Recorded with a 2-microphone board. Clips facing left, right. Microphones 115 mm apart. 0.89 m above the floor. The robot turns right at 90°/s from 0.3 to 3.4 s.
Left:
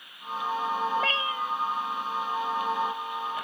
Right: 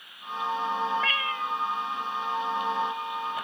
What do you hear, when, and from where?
0.9 s a cat meowing: 130° left; by 1.6 s 175° right